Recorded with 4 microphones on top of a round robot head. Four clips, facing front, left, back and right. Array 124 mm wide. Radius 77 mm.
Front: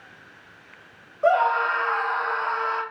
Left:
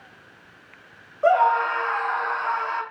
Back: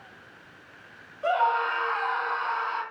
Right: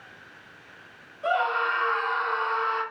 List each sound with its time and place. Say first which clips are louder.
1.2 s a scream: left 7 dB, front 4 dB; 50° left, 8.5 m